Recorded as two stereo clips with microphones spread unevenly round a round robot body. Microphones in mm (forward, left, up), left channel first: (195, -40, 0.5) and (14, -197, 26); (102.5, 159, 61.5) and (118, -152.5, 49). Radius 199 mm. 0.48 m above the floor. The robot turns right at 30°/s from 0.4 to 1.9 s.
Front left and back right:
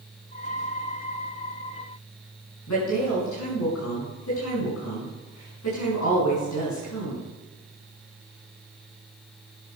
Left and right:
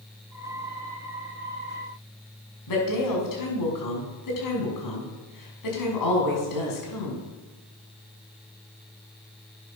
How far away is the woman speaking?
About 5 m.